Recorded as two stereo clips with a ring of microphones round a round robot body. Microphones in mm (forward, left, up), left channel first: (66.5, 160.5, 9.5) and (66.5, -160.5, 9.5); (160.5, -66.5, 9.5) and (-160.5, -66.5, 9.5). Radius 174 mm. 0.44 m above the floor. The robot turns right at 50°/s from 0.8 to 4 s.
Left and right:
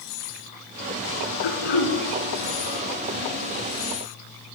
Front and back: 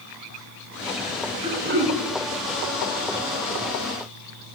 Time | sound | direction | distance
1.4 | throat clearing | 100° left | 2.5 m